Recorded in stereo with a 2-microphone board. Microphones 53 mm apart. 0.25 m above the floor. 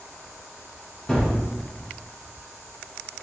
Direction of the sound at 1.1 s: 15° left (ahead or behind).